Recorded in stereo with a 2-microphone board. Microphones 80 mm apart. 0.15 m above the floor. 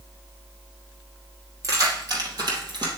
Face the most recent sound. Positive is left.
turn(degrees=-60)  # may be behind; listen again after turning